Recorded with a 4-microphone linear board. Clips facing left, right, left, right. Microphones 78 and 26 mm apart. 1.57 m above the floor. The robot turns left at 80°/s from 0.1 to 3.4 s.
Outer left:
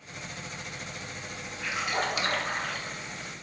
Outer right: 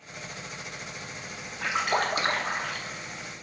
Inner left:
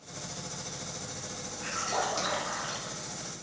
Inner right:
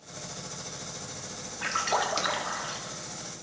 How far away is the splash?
About 1.5 m.